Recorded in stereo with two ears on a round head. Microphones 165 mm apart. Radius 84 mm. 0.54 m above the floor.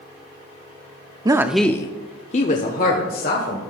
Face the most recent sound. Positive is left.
turn(degrees=50)  # may be behind; listen again after turning